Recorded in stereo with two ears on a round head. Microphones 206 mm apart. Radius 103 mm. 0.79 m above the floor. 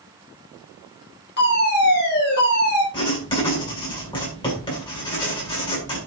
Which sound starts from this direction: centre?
Writing, at 2.9 s.